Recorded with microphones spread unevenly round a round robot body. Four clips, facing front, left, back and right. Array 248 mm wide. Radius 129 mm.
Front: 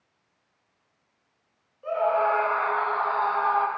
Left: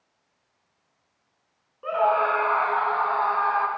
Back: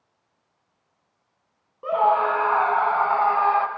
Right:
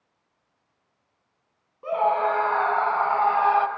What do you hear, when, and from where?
1.8 s a scream: 165° right, 4 m; by 3.7 s 135° right, 2.0 m